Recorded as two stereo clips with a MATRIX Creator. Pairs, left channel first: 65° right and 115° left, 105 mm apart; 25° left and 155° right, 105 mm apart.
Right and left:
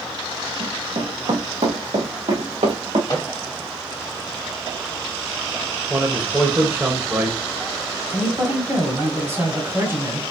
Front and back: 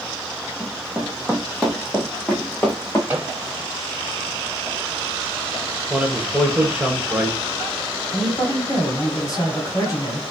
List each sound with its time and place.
0.6 s running footsteps: 130° left, 1.4 m; by 3.0 s 95° left, 2.0 m
3.1 s a microwave: 95° right, 1.6 m
5.9 s a man speaking: 150° left, 0.9 m
8.1 s a woman speaking: 60° left, 1.6 m